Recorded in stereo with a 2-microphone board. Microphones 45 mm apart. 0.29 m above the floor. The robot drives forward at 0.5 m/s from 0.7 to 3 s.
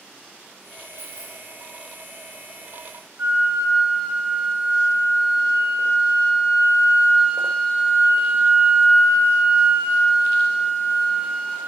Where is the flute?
40° right (ahead or behind), 1.1 m.